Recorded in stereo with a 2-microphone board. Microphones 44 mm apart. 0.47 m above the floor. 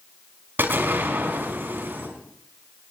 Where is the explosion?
55° right (ahead or behind), 5 m.